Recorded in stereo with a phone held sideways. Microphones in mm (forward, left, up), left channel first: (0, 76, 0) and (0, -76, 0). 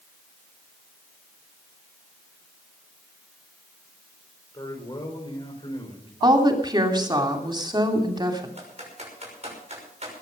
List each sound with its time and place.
4.5 s a man speaking: 30° left (ahead or behind), 5 m; by 6.1 s 35° left (ahead or behind), 6 m
6.2 s a woman speaking: 30° right (ahead or behind), 3 m
8.6 s typing on a keyboard: 45° right (ahead or behind), 6 m